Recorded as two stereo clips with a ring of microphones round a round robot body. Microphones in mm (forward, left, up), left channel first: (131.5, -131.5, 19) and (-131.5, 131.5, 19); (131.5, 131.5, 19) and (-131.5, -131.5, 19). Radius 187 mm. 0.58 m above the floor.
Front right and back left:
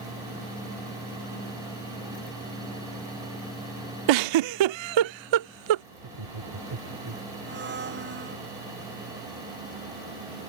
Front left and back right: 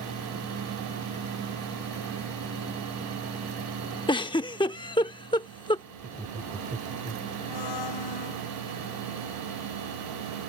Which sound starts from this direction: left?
A blender, at 7.5 s.